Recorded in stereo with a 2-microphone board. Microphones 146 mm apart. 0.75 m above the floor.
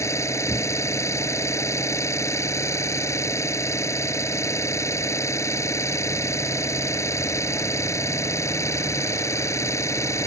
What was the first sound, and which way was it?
An engine running, 20° left (ahead or behind).